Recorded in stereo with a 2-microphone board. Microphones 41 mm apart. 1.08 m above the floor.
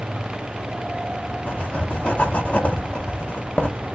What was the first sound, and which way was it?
Writing, 35° left (ahead or behind).